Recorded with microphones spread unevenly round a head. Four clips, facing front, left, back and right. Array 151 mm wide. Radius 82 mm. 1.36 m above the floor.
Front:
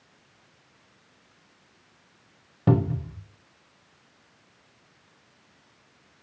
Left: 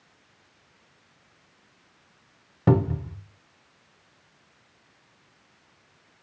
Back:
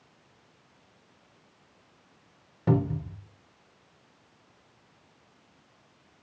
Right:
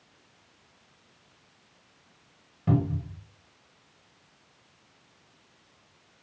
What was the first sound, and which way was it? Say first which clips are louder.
A cupboard door: left 5 dB, front 3 dB; 70° left.